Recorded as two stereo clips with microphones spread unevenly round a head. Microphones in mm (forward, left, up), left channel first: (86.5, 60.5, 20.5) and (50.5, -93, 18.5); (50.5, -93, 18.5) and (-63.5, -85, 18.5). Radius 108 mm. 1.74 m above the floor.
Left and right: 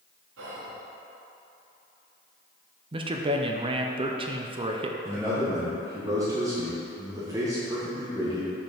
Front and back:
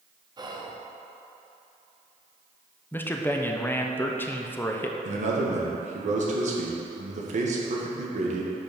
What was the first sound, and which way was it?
Whispering, 130° right.